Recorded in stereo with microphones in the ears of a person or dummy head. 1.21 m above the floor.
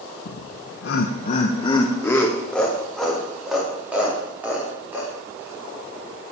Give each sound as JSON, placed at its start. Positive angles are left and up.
{"t": 0.2, "sound": "laughter", "side_deg": 75, "distance_m": 0.9}